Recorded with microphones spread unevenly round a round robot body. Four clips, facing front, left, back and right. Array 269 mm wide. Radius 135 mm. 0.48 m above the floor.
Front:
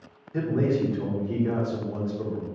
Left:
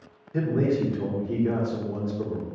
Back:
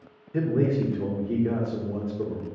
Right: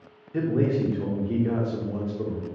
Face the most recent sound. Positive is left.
turn(degrees=-170)